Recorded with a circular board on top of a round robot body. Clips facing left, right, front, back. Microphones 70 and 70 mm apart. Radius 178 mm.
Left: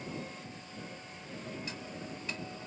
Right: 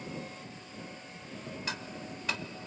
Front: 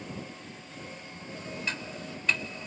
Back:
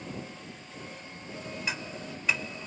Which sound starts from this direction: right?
Ticking, at 1.7 s.